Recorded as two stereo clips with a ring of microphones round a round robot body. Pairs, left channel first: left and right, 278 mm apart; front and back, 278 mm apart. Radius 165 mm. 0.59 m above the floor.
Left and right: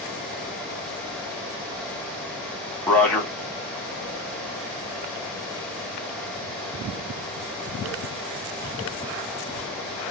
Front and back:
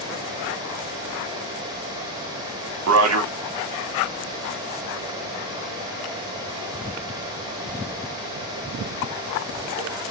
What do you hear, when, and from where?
2.9 s a man speaking: 175° left, 2 m